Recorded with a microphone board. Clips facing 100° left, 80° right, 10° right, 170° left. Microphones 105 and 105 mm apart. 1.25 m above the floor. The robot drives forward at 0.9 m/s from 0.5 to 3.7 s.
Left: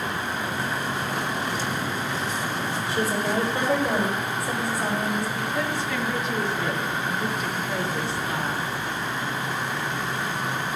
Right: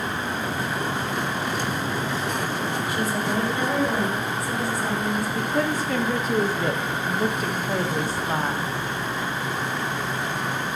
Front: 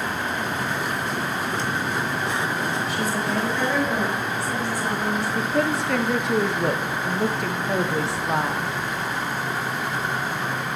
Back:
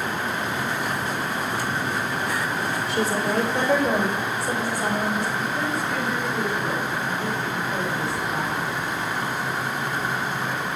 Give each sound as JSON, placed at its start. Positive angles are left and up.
{"t": 2.9, "sound": "a woman speaking", "azimuth_deg": 160, "distance_m": 4.0}
{"t": 5.3, "sound": "a woman speaking", "azimuth_deg": -25, "distance_m": 1.0}